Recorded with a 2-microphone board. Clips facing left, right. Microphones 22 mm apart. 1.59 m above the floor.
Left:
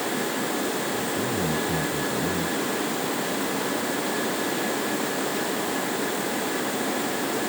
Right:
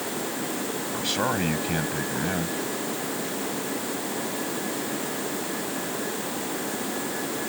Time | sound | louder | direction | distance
0.9 | a man speaking | right 1 dB | 80° right | ?